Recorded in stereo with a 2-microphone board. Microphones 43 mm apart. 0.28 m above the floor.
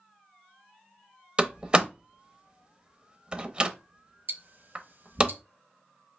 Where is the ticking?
50° right (ahead or behind), 0.7 m.